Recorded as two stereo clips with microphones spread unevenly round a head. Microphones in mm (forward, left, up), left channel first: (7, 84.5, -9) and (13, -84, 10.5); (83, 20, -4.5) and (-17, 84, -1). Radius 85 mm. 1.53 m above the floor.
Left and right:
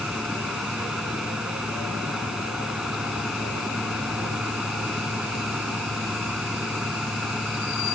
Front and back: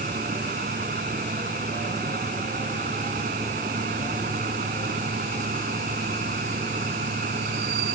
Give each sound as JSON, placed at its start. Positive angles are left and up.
{"t": 0.0, "sound": "a fan", "azimuth_deg": -175}